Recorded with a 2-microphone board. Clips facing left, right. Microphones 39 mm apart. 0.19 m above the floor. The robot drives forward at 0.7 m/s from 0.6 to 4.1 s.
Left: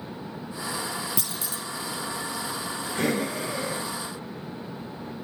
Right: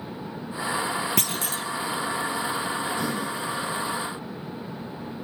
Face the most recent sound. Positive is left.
turn(degrees=60)  # may be behind; listen again after turning